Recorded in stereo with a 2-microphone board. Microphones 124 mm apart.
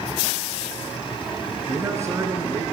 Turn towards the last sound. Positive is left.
turn(degrees=-20)  # may be behind; listen again after turning